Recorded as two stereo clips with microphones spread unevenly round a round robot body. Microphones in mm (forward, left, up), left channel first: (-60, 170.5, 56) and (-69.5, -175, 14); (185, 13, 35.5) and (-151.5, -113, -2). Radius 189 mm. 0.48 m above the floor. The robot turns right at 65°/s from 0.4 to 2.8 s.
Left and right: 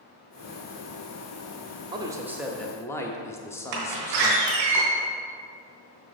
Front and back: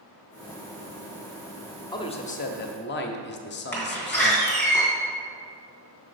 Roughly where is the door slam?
Ahead right.